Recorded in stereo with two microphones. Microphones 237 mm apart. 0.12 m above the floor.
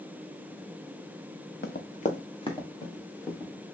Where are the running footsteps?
50° left (ahead or behind), 0.5 m; by 3.5 s 10° left (ahead or behind), 1.7 m.